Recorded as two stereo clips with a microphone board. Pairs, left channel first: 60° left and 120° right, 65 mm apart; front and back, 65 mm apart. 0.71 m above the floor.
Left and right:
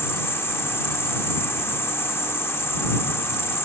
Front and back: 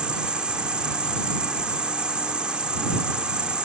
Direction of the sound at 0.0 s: 105° left.